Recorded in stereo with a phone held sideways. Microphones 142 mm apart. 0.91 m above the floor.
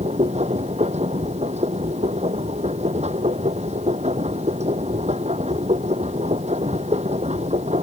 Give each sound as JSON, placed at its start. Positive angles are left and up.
{"t": 0.0, "sound": "a machine running", "side_deg": -55}